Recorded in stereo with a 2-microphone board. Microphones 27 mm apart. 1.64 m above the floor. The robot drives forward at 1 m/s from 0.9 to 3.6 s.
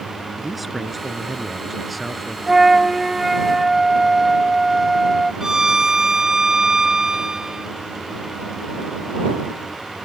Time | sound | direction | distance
0.4 | a man speaking | centre (ahead or behind) | ?
2.5 | a flute | 15° right (ahead or behind) | ?
5.4 | a violin | 20° right (ahead or behind) | ?